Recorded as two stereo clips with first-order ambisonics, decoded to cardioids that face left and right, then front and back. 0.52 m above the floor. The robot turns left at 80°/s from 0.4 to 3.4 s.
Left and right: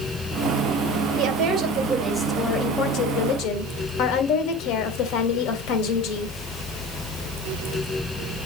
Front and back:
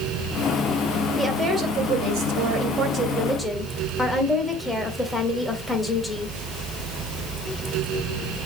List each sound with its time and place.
1.2 s a woman speaking: 100° right, 2.0 m; by 6.4 s 85° left, 2.0 m